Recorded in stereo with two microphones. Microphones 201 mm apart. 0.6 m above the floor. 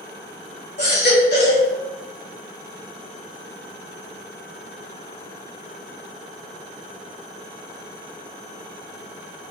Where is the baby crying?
55° left (ahead or behind), 1.2 m.